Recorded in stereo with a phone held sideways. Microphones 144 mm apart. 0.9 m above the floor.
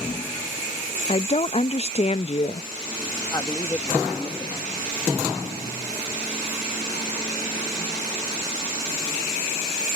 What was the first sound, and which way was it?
A woman speaking, 40° left (ahead or behind).